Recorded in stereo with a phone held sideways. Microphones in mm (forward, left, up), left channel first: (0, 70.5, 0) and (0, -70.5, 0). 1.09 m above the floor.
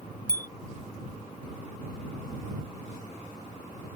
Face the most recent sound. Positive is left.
turn(degrees=85)